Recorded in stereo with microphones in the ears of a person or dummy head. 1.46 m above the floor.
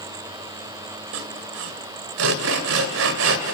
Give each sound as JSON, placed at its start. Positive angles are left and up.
{"t": 1.1, "sound": "sawing", "side_deg": -60, "distance_m": 2.0}